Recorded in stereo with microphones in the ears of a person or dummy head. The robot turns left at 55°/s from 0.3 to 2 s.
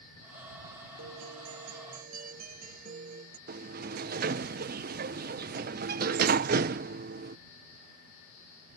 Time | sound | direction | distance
1.0 | a guitar | 75° right | ?
3.5 | a sliding door | 45° right (ahead or behind) | ?